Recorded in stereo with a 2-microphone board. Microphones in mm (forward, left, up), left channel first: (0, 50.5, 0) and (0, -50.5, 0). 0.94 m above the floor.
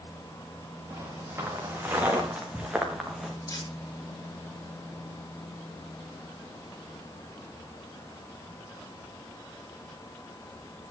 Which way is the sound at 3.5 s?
35° left (ahead or behind).